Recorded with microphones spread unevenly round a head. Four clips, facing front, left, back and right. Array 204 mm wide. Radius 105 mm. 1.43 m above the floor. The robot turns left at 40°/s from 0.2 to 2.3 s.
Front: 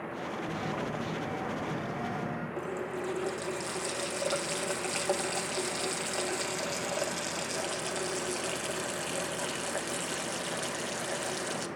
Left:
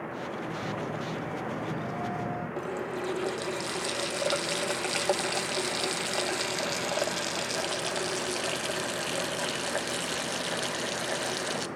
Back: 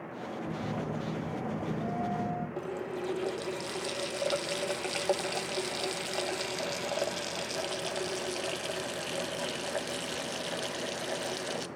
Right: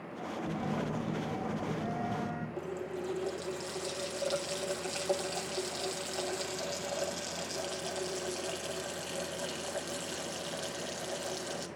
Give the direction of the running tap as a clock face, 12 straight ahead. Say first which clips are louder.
Left 5 dB, front 1 dB; 8 o'clock.